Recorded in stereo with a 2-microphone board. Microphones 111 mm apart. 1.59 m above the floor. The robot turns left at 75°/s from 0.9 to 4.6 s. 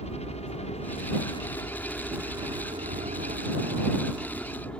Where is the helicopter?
80° left; by 4.8 s 165° left.